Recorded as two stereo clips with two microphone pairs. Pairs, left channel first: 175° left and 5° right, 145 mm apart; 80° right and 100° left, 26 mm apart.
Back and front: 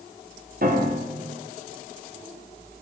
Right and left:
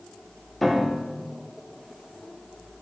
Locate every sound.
0.6 s a piano: 10° left, 0.9 m